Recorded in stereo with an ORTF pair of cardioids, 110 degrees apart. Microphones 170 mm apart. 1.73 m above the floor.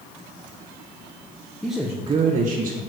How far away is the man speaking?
About 1.3 m.